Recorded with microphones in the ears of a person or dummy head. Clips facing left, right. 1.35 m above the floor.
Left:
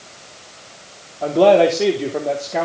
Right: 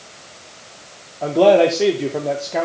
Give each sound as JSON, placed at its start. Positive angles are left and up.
{"t": 1.2, "sound": "a man speaking", "side_deg": 0, "distance_m": 2.5}